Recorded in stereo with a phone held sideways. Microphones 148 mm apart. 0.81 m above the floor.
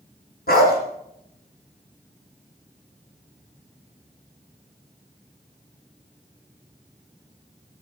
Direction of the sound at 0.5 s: 80° left.